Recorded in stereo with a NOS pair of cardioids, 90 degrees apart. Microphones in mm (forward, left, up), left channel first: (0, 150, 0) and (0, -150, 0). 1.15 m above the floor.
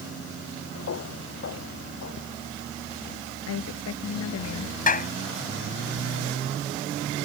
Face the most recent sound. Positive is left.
turn(degrees=25)